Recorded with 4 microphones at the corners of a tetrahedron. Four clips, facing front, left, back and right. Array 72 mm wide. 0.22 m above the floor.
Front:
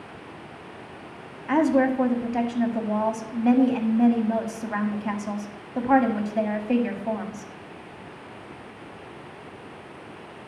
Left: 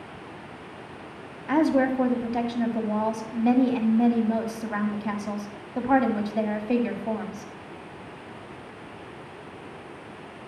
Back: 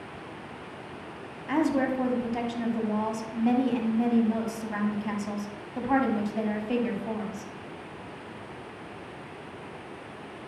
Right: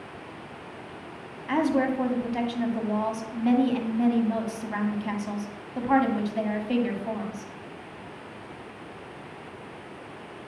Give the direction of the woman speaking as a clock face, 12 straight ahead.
11 o'clock.